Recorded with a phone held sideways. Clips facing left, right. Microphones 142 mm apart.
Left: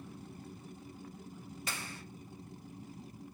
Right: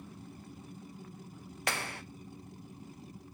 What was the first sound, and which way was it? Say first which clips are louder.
A clap: right 9 dB; 70° right (ahead or behind).